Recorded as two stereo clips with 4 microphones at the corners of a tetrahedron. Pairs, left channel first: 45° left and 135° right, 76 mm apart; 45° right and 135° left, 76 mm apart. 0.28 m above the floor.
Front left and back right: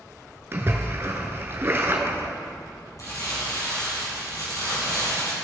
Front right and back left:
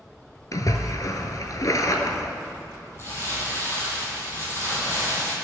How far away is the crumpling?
About 3 m.